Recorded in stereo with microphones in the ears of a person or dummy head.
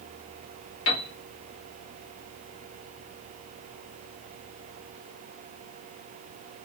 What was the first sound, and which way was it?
A piano, 80° left.